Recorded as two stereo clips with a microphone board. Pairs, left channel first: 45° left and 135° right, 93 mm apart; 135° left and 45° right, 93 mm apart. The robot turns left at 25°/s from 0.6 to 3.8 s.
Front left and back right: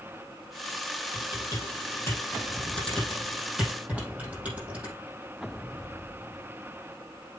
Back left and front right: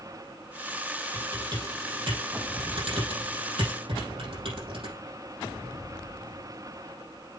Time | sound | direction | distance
1.1 | typing on a keyboard | 5° left | 4.5 m